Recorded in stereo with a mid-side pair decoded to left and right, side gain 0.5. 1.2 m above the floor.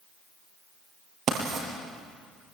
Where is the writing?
55° right, 7 m.